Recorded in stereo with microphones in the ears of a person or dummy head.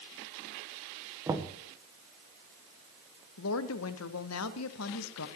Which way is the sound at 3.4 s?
85° left.